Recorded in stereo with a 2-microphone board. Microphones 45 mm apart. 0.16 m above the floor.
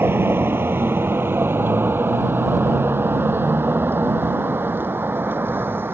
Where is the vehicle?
55° right (ahead or behind); by 6.0 s 50° right (ahead or behind).